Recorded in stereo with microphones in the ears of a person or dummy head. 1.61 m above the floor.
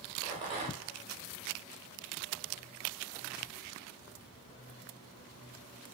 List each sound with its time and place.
0.2 s a rattle: 30° right (ahead or behind), 0.9 m